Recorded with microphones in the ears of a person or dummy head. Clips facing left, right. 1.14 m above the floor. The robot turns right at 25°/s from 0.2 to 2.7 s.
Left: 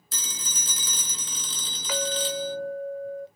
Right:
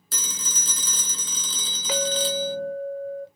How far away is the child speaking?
No child speaking in this recording.